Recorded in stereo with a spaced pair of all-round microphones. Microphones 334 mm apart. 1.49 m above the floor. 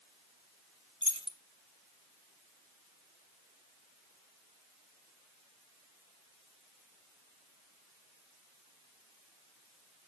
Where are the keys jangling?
15° left (ahead or behind), 0.9 m.